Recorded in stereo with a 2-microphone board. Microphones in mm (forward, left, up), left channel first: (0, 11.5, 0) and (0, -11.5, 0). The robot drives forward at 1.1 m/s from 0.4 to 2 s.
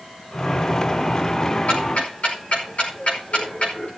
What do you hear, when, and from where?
1.7 s ticking: 70° left (ahead or behind), 4.5 m; by 3.9 s 65° left (ahead or behind), 5 m